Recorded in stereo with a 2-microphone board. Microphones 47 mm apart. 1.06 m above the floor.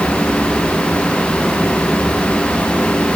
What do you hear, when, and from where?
Only background noise.